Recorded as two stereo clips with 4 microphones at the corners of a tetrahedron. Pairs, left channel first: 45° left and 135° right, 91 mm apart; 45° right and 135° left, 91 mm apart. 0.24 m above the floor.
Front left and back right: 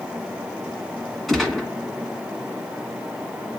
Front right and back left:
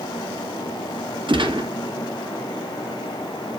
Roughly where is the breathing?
No breathing in this recording.